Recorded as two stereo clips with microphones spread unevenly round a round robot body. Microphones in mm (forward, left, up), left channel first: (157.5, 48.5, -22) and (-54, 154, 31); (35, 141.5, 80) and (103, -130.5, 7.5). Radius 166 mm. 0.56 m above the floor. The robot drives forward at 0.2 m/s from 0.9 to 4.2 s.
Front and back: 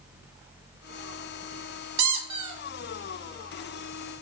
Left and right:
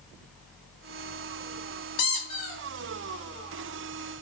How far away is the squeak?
About 0.7 m.